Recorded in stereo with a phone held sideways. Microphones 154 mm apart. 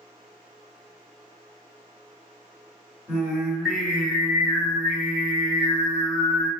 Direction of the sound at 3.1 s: 5° right (ahead or behind).